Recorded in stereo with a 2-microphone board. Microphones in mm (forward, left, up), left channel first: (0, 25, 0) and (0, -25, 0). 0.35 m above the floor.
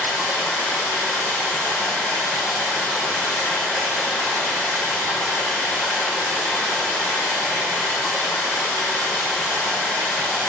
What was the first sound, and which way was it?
Running water, 65° left (ahead or behind).